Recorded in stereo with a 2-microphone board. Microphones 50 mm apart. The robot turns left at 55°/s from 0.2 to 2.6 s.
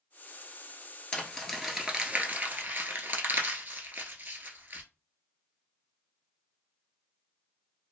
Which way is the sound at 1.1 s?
20° left (ahead or behind).